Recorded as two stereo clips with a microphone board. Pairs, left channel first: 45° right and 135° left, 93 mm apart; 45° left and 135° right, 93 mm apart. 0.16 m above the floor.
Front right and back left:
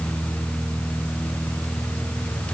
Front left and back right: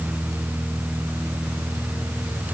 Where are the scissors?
I don't hear scissors.